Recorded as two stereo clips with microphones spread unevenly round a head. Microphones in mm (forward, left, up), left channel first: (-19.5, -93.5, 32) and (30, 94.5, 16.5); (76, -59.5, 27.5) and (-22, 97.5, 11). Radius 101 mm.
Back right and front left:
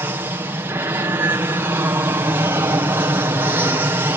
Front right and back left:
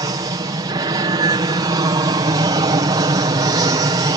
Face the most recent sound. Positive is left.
turn(degrees=130)